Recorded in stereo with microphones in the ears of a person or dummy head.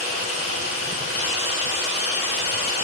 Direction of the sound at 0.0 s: 65° left (ahead or behind).